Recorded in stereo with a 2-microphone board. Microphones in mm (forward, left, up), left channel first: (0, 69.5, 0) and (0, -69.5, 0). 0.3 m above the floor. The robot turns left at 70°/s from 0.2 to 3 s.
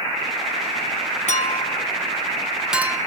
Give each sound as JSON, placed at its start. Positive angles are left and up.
{"t": 1.3, "sound": "a clink", "side_deg": 60, "distance_m": 1.6}